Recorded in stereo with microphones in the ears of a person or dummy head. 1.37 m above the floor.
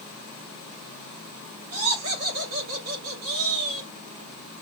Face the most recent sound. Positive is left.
turn(degrees=-60)  # may be behind; listen again after turning